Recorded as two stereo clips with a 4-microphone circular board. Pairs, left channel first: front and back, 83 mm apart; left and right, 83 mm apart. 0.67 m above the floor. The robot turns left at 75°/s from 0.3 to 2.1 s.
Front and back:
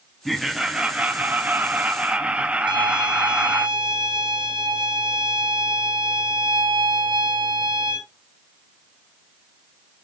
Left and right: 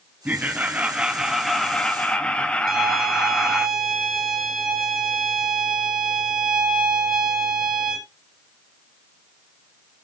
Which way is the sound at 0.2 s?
90° right.